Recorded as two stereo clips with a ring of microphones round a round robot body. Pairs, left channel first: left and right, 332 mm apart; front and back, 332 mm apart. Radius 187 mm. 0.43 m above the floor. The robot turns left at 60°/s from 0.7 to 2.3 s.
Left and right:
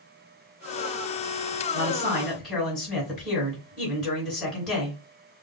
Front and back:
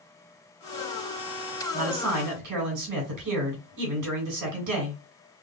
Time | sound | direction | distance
1.7 | a man speaking | 140° right | 2.5 m